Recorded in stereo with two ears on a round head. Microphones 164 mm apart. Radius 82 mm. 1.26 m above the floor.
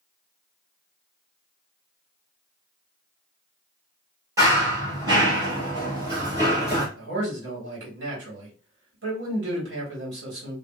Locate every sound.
4.4 s running footsteps: 20° right (ahead or behind), 1.5 m
7.0 s a man speaking: 65° right (ahead or behind), 1.5 m